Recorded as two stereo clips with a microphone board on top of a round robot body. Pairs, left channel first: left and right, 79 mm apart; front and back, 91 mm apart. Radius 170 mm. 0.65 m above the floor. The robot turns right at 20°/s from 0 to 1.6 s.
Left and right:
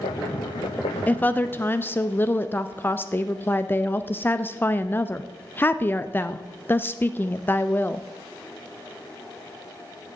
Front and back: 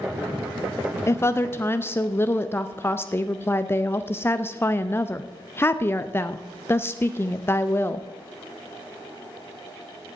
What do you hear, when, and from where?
1.1 s a woman speaking: 35° left, 0.7 m; by 8.1 s 45° left, 0.7 m